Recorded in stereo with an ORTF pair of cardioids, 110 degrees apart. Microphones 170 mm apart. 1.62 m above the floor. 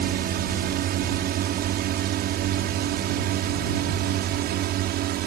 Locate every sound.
0.0 s a drone: 65° right; by 5.3 s 70° right